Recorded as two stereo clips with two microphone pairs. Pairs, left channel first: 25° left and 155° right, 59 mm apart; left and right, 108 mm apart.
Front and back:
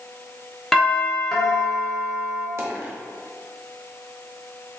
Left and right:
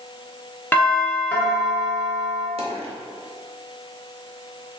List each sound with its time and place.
0.7 s a doorbell: 100° left, 1.0 m
2.6 s a dropped coin: 110° right, 1.1 m